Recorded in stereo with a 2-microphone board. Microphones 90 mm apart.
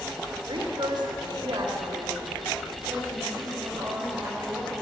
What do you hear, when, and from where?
0.5 s a woman speaking: 70° right (ahead or behind), 3.5 m; by 4.7 s 45° right (ahead or behind), 8.5 m